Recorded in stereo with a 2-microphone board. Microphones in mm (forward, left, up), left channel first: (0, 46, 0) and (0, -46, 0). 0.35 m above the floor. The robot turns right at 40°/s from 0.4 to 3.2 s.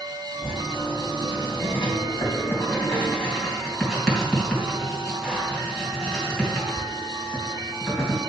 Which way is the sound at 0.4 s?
55° left (ahead or behind).